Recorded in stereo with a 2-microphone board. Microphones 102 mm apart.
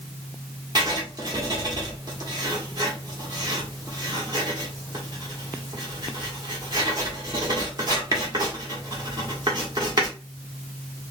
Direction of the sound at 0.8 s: 40° right (ahead or behind).